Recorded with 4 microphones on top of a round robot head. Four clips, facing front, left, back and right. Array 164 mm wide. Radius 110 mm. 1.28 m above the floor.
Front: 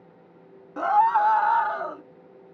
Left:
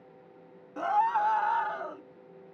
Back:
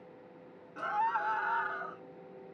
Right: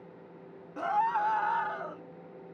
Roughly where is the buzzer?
I don't hear a buzzer.